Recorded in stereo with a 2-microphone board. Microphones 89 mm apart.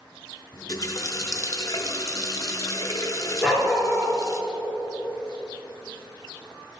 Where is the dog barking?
5° left (ahead or behind), 3 m.